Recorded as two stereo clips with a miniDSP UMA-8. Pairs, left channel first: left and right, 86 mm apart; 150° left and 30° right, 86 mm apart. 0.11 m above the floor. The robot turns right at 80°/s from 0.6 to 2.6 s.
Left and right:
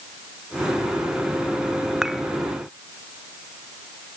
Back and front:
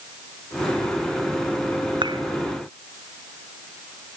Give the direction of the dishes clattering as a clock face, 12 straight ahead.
12 o'clock.